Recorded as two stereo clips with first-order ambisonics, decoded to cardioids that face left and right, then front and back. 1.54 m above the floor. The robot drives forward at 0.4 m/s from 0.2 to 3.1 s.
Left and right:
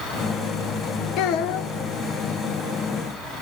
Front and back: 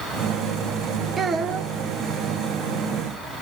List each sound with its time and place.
1.2 s a child speaking: 110° left, 0.8 m; by 1.7 s 125° left, 0.9 m